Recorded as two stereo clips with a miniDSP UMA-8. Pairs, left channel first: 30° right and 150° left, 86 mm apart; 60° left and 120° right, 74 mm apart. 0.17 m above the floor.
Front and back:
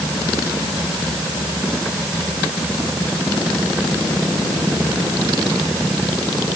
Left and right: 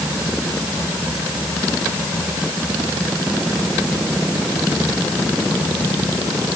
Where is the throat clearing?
I don't hear throat clearing.